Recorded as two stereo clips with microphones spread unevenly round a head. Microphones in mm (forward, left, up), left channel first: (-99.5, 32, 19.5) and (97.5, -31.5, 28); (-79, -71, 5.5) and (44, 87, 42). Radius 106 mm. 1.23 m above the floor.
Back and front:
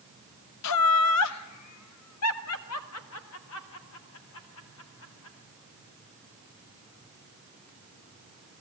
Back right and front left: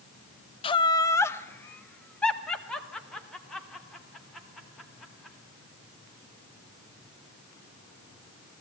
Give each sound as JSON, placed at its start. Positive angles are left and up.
{"t": 0.6, "sound": "laughter", "azimuth_deg": 165, "distance_m": 0.6}